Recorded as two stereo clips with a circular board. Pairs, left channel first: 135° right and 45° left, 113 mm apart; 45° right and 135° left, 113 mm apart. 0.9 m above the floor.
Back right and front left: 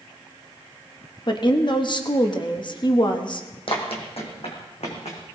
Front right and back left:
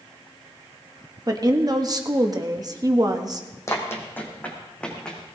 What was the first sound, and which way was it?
A woman speaking, 175° right.